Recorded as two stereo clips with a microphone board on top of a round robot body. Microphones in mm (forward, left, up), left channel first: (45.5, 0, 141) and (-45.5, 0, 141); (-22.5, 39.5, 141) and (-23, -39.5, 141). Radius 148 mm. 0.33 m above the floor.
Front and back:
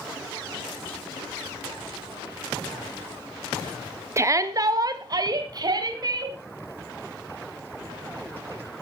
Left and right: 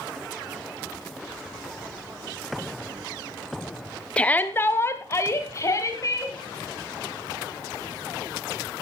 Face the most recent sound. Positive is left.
turn(degrees=140)